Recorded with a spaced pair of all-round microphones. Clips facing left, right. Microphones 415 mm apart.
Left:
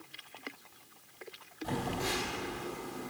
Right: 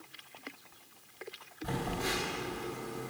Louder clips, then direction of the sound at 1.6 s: Even; 45° right (ahead or behind).